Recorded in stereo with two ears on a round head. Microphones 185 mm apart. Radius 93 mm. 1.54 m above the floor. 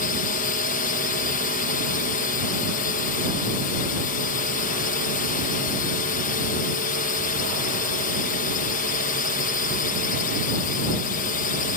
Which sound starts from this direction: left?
A drone, at 0.0 s.